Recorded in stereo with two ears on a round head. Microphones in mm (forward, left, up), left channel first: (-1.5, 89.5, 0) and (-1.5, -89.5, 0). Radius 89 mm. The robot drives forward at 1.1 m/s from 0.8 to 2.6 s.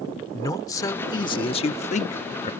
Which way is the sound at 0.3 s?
20° left (ahead or behind).